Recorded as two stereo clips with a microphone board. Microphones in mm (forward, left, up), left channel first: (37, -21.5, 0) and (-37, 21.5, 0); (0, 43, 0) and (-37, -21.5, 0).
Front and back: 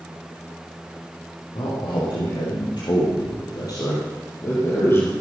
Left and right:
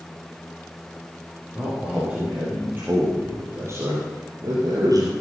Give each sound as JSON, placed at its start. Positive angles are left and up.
{"t": 1.6, "sound": "a man speaking", "azimuth_deg": -45, "distance_m": 6.5}